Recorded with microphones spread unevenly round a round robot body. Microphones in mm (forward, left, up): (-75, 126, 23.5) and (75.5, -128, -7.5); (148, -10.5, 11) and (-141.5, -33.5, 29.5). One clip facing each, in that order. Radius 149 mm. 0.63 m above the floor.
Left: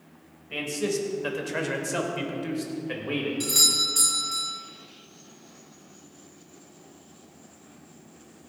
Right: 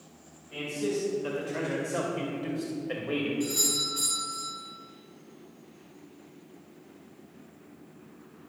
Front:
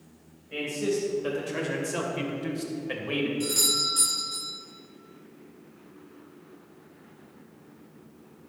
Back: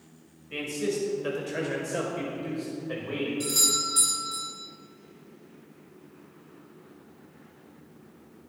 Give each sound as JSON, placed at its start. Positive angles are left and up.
{"t": 0.5, "sound": "a man speaking", "azimuth_deg": 110, "distance_m": 3.0}
{"t": 3.4, "sound": "a doorbell", "azimuth_deg": 105, "distance_m": 3.5}